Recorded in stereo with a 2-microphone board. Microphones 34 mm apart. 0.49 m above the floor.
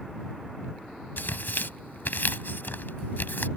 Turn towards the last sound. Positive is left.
turn(degrees=75)  # may be behind; listen again after turning